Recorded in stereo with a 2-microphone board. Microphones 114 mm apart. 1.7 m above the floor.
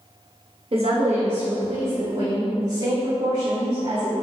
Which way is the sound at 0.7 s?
55° right (ahead or behind).